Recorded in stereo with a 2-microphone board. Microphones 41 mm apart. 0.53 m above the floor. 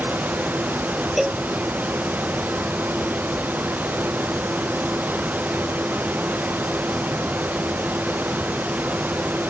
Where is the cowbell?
10° right (ahead or behind).